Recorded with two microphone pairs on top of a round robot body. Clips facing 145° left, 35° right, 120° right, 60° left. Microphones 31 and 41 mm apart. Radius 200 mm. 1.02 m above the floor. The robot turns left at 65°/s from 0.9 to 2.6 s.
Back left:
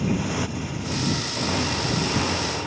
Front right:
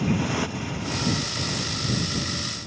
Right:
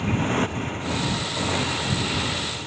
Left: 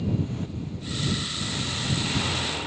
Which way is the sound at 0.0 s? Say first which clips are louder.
Even, right 6 dB; 115° right.